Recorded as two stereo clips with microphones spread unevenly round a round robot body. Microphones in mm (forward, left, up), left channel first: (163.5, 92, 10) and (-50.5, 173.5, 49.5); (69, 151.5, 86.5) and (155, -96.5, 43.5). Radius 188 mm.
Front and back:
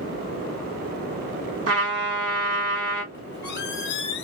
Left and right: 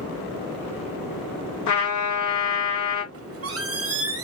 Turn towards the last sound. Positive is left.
turn(degrees=-55)